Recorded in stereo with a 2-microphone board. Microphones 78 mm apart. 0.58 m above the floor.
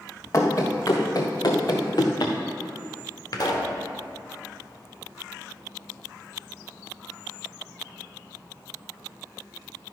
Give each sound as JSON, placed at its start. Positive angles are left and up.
{"t": 0.3, "sound": "running footsteps", "side_deg": 40, "distance_m": 2.0}
{"t": 3.3, "sound": "a pop", "side_deg": 60, "distance_m": 1.2}